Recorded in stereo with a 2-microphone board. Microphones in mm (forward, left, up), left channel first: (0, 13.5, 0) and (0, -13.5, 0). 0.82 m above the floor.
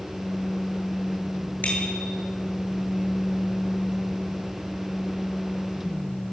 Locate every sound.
1.6 s a bicycle bell: 70° left (ahead or behind), 9.5 m